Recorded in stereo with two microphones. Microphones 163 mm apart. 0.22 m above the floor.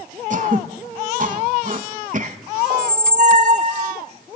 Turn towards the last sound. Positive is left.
turn(degrees=-50)  # may be behind; listen again after turning